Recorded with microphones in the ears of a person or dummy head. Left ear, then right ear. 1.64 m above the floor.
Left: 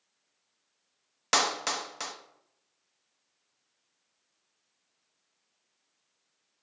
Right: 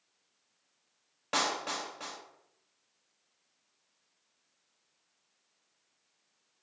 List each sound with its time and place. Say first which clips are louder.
1.3 s a clap: left 5 dB; 65° left (ahead or behind), 0.8 m